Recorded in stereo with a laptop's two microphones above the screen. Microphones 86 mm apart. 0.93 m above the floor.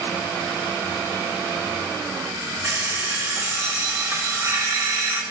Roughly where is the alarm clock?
Right.